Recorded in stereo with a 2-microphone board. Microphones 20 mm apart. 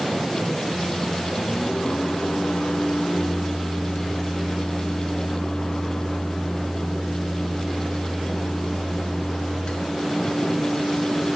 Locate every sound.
0.7 s a microwave: 45° left (ahead or behind), 1.1 m